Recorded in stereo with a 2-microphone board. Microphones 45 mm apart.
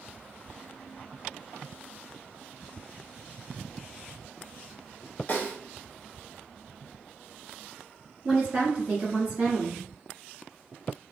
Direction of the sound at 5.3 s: 35° left (ahead or behind).